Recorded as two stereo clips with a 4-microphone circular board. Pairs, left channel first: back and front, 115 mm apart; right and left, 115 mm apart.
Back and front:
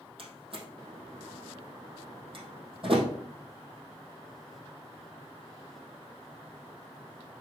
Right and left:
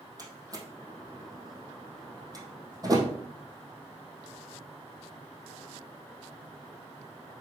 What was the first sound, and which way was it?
A door slam, 35° left.